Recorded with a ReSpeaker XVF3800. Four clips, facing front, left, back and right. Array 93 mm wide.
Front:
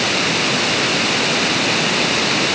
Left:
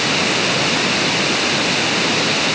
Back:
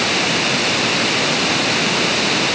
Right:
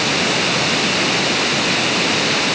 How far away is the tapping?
No tapping in this recording.